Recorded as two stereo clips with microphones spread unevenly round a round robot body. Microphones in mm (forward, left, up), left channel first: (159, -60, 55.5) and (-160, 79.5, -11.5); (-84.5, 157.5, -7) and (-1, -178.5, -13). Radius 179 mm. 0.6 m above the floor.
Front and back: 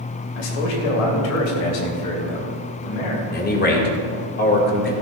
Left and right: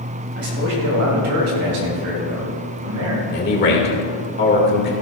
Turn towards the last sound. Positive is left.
turn(degrees=45)